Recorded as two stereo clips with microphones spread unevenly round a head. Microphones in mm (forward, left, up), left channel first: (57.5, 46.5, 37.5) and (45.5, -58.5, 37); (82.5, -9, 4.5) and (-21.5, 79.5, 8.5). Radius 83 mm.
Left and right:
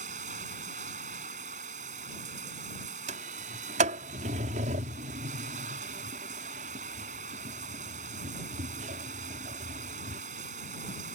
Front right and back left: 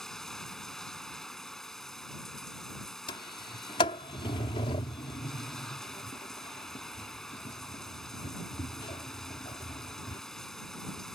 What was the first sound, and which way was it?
Running water, 130° right.